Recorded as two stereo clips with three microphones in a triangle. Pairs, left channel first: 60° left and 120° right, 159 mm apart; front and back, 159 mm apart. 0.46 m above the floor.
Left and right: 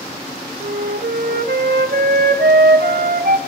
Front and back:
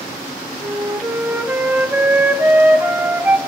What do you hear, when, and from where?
0.6 s a flute: 100° right, 0.7 m